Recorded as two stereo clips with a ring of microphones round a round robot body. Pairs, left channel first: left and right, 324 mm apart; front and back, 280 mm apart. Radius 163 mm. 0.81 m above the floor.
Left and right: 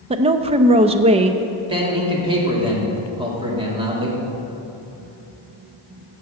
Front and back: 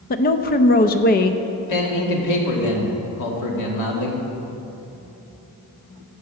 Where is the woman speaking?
30° right, 0.5 m.